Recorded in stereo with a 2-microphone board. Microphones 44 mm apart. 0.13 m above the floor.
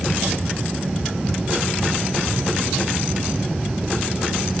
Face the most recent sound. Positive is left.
No sound to turn to.